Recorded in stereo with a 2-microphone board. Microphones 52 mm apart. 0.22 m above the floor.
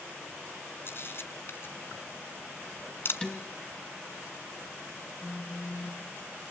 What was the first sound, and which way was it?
A camera shutter, 50° left (ahead or behind).